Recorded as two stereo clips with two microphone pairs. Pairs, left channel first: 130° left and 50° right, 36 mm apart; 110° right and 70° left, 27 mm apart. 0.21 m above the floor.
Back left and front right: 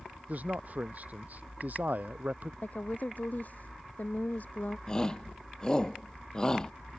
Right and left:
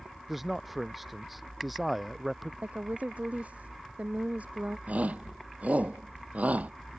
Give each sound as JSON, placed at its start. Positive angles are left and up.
{"t": 0.3, "sound": "a man speaking", "azimuth_deg": -10}
{"t": 2.6, "sound": "a woman speaking", "azimuth_deg": 90}
{"t": 4.9, "sound": "a shout", "azimuth_deg": 60}